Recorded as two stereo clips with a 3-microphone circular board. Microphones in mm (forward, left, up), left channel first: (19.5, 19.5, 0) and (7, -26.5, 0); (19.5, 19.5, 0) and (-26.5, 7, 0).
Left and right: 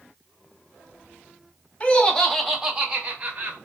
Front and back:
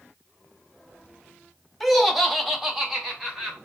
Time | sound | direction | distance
1.8 | laughter | 105° left | 0.7 m